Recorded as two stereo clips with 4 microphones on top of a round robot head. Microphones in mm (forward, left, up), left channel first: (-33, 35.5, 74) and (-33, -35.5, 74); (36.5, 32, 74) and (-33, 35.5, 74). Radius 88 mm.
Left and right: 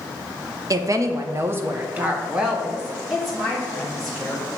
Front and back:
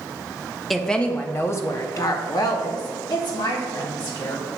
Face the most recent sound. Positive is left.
turn(degrees=0)